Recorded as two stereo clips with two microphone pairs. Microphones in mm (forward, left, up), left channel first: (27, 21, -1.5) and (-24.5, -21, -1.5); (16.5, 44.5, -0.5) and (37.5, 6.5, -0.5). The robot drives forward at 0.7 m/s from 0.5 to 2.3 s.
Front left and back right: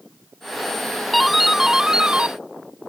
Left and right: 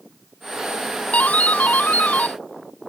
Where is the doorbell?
130° left; by 2.4 s 150° left.